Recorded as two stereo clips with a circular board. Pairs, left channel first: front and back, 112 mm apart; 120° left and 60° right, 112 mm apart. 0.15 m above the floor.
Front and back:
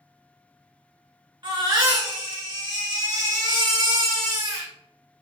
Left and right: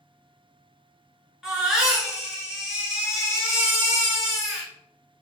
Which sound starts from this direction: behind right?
A baby crying, at 1.4 s.